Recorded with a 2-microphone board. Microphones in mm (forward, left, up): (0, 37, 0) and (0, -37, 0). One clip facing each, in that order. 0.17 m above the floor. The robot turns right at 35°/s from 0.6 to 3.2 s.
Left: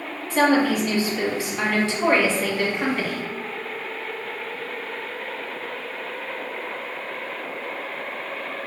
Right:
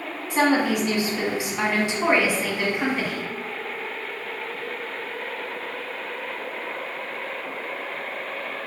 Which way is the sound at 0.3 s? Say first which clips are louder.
Left 2 dB; 20° right (ahead or behind).